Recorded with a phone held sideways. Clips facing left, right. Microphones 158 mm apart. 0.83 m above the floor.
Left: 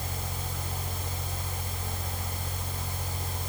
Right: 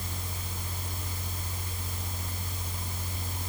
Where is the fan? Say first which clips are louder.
Left 4 dB; 70° left (ahead or behind), 4.5 m.